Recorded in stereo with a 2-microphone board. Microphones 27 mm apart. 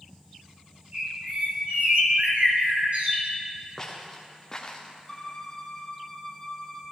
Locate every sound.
0.9 s a bird: 55° right (ahead or behind), 1.9 m
3.8 s footsteps: 10° left (ahead or behind), 2 m; by 4.9 s 25° left (ahead or behind), 1.5 m
5.1 s a violin: 25° left (ahead or behind), 1.1 m